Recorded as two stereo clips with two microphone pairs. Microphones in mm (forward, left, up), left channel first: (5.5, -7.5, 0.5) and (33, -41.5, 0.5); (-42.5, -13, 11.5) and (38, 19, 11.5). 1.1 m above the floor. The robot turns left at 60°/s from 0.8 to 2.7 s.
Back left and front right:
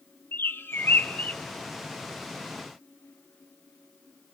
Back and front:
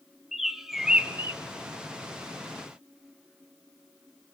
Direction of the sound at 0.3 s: 110° left.